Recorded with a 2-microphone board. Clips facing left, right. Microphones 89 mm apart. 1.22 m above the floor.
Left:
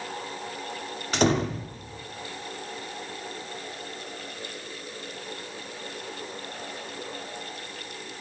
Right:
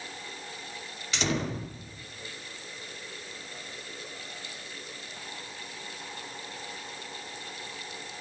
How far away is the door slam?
About 2.5 m.